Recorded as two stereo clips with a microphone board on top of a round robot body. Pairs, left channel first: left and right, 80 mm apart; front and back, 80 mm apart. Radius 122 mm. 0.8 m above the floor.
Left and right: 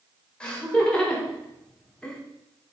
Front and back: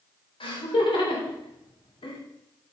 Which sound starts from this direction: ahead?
Laughter, at 0.4 s.